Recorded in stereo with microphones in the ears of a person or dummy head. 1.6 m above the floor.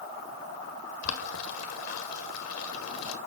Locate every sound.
1.0 s boiling: 85° left, 1.6 m